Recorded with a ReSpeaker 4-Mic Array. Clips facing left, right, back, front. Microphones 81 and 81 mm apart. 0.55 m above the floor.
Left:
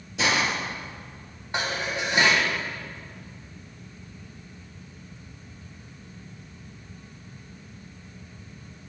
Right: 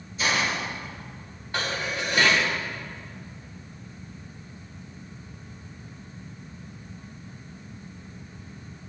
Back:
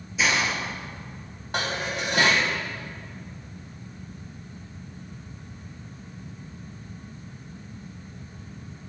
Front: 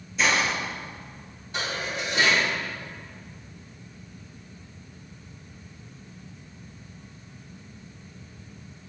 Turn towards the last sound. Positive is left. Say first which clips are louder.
# left 1 dB, back 2 dB
turn(degrees=160)